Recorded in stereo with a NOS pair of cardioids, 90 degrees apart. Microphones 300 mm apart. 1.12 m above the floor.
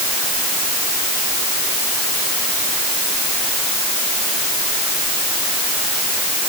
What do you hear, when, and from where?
Only background noise.